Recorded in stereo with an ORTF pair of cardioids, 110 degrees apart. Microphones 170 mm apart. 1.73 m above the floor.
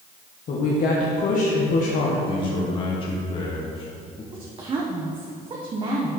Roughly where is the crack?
I don't hear a crack.